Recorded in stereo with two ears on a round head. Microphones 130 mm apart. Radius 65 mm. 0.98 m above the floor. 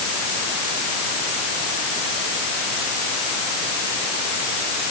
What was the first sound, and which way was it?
Only background noise.